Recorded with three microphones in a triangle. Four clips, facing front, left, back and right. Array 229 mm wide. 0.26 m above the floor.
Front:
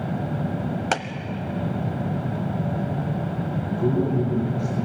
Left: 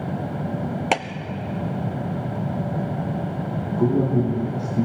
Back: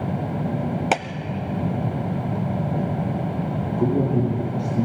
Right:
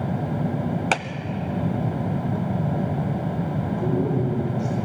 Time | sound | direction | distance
0.9 | a clap | 145° left | 0.8 m
3.7 | a man speaking | 135° left | 7 m